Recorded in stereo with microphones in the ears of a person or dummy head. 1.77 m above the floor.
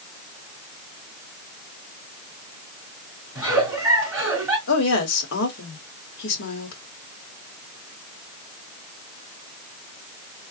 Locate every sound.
3.4 s a giggle: 15° right (ahead or behind), 2.5 m
4.7 s a woman speaking: 75° left (ahead or behind), 1.3 m